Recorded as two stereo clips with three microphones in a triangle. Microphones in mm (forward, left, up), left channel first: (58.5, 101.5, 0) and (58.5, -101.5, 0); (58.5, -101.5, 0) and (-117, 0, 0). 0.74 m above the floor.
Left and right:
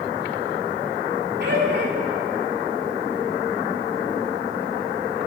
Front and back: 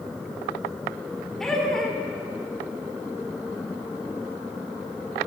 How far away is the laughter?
About 2 m.